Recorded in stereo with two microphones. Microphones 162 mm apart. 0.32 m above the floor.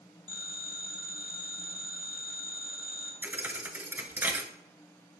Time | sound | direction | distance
0.3 | a phone ringing | 35° right (ahead or behind) | 1.3 m
3.2 | a thud | 15° right (ahead or behind) | 0.6 m